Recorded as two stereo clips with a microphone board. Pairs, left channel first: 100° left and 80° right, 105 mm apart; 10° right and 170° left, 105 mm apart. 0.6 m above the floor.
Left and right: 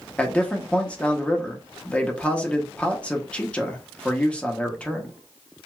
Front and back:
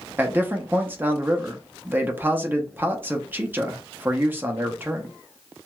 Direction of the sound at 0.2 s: 145° left.